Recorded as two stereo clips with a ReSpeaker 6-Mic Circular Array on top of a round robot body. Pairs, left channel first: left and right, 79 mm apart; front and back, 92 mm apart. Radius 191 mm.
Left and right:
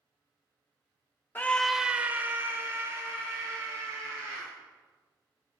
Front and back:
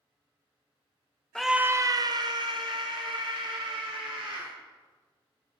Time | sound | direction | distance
1.4 | a scream | 75° left | 0.9 m